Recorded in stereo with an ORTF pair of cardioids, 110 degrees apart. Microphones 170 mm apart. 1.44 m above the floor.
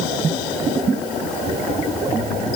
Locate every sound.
Only background noise.